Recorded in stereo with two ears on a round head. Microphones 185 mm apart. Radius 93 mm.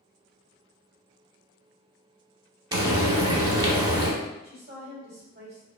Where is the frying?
20° right (ahead or behind), 0.6 m.